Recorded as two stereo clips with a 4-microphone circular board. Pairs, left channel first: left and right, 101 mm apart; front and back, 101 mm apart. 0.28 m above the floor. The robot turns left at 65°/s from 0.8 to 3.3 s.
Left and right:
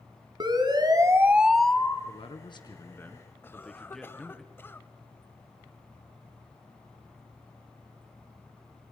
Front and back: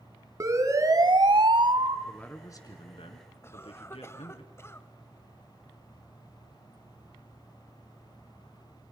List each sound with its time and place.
0.4 s a siren: 125° right, 2.5 m; by 2.0 s 155° left, 1.4 m
2.1 s a man speaking: 85° left, 3 m; by 4.4 s 5° left, 3 m
3.4 s a cough: 40° left, 1.2 m